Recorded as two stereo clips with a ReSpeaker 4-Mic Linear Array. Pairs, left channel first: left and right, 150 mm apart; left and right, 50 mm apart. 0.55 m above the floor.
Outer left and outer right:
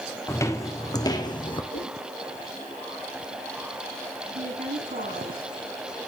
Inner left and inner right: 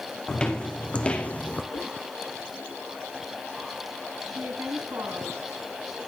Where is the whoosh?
80° left, 7.5 m.